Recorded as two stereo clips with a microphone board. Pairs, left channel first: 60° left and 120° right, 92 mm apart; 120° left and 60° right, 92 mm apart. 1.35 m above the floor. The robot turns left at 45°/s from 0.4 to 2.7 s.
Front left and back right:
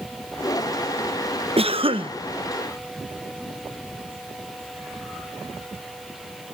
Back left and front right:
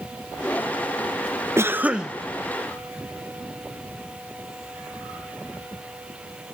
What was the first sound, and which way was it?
A cough, 120° right.